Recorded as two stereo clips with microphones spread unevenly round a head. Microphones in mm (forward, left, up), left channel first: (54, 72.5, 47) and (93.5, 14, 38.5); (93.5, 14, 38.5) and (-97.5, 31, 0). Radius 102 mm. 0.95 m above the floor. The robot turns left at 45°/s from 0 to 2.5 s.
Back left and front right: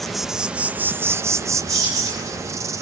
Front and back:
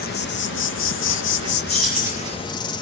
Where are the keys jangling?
90° right, 6.5 m; by 2.3 s 115° right, 6.5 m.